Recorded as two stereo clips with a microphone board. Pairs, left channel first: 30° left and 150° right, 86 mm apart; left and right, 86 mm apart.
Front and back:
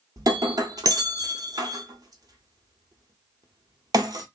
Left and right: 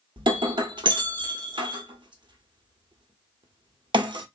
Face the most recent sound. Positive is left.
turn(degrees=-105)